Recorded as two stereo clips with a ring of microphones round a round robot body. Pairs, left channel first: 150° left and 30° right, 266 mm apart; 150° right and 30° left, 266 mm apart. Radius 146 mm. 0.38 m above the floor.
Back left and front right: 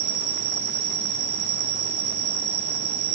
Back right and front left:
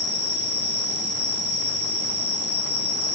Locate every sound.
0.0 s an insect: 70° right, 7 m